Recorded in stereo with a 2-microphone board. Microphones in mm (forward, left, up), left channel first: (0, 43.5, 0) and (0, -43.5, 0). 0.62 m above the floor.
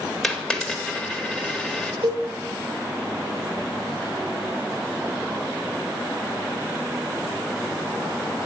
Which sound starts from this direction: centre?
A dropped coin, at 0.2 s.